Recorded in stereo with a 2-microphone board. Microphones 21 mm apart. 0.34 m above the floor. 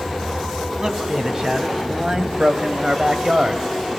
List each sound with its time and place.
0.8 s a man speaking: 30° right (ahead or behind), 2.5 m; by 3.6 s 45° right (ahead or behind), 1.7 m